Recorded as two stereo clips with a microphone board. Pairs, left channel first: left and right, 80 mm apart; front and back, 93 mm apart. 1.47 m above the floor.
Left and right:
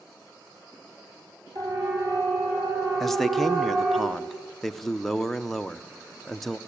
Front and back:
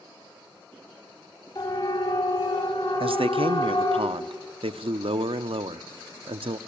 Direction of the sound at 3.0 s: 175° left.